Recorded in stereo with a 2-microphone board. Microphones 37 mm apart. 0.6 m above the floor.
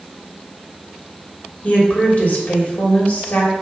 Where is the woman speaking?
45° left (ahead or behind), 3 m.